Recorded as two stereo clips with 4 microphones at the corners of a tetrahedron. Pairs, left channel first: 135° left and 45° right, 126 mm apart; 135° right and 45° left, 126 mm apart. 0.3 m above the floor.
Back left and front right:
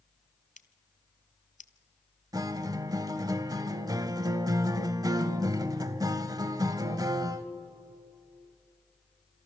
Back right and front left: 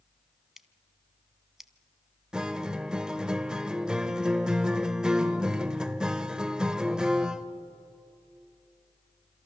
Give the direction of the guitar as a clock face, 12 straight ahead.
1 o'clock.